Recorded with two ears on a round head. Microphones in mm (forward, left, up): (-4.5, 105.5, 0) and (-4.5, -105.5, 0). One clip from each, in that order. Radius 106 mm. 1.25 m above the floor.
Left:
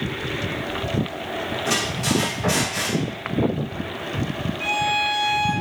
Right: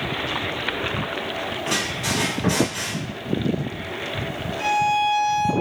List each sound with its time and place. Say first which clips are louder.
1.6 s a squeak: left 1 dB; 25° left (ahead or behind), 2 m
4.6 s a violin: right 2 dB; 15° right (ahead or behind), 0.9 m